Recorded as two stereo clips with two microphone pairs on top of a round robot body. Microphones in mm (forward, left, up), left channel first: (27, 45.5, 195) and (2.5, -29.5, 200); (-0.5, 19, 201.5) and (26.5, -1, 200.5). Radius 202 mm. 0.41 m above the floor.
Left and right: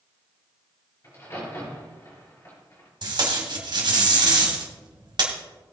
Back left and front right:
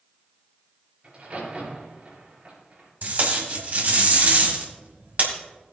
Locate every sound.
1.0 s a crack: 20° left, 6 m
3.0 s tape being pulled: 75° right, 2 m